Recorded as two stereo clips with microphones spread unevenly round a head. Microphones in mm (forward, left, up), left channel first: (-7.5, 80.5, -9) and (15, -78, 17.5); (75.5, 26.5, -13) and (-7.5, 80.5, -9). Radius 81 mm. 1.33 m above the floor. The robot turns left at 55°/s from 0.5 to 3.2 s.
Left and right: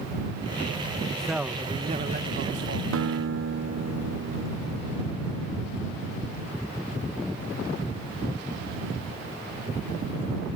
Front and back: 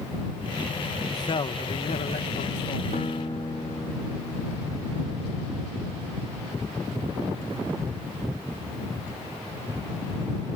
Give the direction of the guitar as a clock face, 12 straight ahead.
3 o'clock.